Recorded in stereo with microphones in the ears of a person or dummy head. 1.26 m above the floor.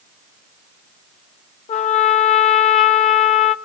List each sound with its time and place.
1.7 s a trumpet: 35° left (ahead or behind), 0.6 m